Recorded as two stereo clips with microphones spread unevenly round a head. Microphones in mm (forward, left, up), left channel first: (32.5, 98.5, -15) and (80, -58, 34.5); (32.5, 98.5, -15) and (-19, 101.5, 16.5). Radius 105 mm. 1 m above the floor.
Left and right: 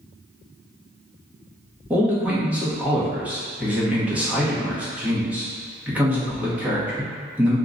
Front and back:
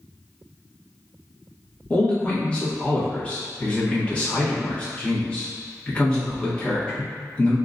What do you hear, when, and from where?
1.9 s a man speaking: 20° left, 1.2 m